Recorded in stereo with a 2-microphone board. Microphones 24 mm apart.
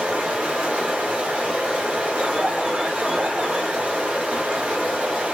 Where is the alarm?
40° right (ahead or behind), 0.9 m.